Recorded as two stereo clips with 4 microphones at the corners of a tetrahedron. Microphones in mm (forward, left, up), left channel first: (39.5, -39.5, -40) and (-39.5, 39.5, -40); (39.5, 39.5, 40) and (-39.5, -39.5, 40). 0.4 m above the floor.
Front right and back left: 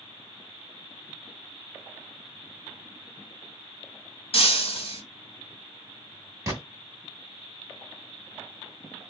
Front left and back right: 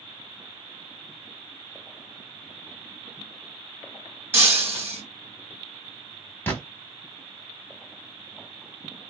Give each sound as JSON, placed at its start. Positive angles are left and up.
{"t": 4.3, "sound": "breaking glass", "azimuth_deg": -65, "distance_m": 1.3}
{"t": 6.5, "sound": "a gunshot", "azimuth_deg": 100, "distance_m": 1.0}